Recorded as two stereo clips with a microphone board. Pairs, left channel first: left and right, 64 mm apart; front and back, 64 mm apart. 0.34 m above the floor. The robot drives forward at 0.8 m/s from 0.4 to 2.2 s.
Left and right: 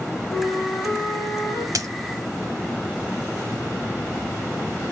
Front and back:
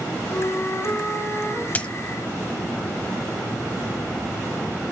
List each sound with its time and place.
0.3 s a flute: 35° left, 3 m; by 1.6 s 55° left, 2.5 m
1.8 s a dropped coin: 65° right, 0.7 m; by 1.9 s 75° right, 0.6 m